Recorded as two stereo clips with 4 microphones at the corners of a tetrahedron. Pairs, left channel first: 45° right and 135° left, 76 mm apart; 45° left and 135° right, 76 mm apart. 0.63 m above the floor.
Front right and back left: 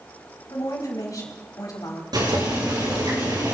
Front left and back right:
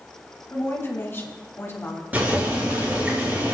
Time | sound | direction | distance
0.5 | a woman speaking | 10° right | 3.5 m
2.1 | boiling | 160° left | 6 m